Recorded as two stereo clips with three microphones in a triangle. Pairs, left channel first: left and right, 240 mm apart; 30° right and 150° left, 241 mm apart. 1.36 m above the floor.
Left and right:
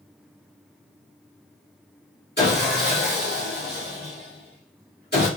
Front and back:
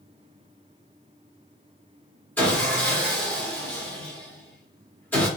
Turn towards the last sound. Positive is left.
turn(degrees=50)